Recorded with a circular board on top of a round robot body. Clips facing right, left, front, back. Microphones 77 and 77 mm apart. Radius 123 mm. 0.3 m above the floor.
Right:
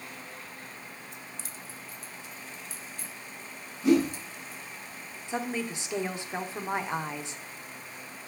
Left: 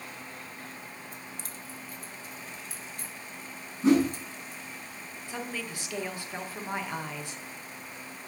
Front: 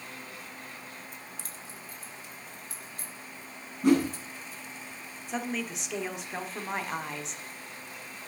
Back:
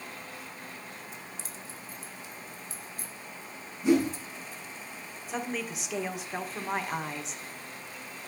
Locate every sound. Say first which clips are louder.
1.1 s keys jangling: left 1 dB, back 1 dB; 45° left, 1.6 m
3.8 s a whoosh: left 1 dB, front 1 dB; 35° left, 6 m
5.3 s a woman speaking: right 5 dB, front 1 dB; 95° right, 1.5 m